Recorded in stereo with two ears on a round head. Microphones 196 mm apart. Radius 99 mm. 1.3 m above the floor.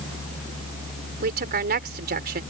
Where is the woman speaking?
50° right (ahead or behind).